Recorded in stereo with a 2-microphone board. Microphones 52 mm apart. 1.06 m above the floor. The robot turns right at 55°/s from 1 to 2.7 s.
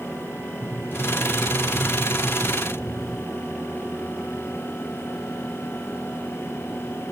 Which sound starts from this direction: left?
A sliding door, at 0.6 s.